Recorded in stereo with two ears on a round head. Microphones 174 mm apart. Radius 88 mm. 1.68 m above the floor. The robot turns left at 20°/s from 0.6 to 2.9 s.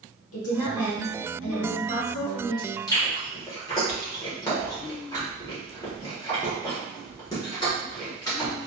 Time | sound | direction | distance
0.3 | a woman speaking | 85° left | 1.1 m
2.9 | chewing | 20° left (ahead or behind) | 1.3 m